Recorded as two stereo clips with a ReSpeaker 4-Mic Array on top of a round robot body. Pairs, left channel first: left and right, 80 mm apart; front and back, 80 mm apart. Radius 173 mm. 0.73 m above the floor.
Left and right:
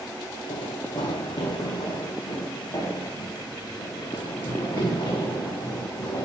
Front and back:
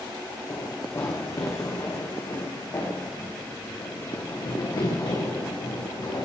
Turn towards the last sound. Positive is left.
turn(degrees=40)